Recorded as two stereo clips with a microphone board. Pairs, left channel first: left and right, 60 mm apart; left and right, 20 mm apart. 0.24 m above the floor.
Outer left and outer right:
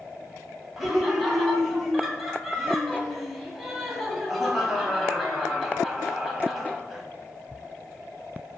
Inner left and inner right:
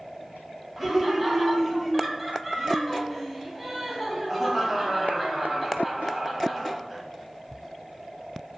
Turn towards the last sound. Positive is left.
turn(degrees=0)  # may be behind; listen again after turning